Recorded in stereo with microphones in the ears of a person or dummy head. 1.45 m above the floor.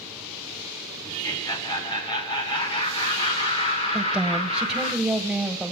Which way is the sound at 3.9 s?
Centre (ahead or behind).